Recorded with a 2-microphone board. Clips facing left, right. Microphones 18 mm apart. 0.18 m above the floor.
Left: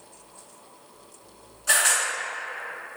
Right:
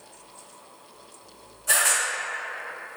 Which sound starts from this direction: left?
A camera shutter, at 1.7 s.